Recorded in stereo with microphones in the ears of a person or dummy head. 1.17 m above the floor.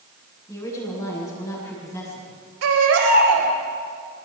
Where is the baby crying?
85° right, 4.5 m.